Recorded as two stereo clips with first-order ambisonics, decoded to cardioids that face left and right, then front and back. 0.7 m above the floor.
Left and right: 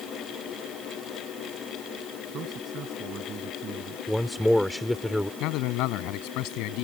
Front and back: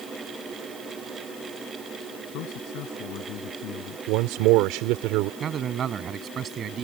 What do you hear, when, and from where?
2.3 s a man speaking: 30° right
4.1 s a man speaking: straight behind
5.4 s a man speaking: 120° left